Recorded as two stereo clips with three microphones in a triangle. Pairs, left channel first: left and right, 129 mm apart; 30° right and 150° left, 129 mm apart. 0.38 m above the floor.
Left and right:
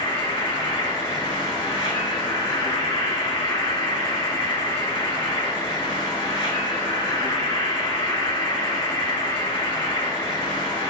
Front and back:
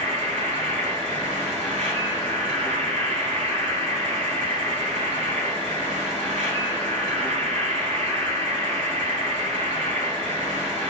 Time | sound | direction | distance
0.0 | an insect | 140° left | 1.5 m